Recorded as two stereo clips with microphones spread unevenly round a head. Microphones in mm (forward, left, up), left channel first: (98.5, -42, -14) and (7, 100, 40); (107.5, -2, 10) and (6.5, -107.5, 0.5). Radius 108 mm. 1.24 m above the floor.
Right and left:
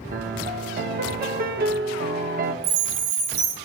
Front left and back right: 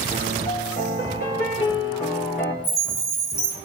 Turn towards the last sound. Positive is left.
turn(degrees=140)